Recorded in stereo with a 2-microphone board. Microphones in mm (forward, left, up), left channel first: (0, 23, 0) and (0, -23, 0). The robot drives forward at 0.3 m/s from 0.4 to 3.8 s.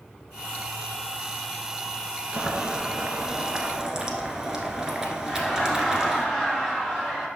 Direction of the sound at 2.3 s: 25° right (ahead or behind).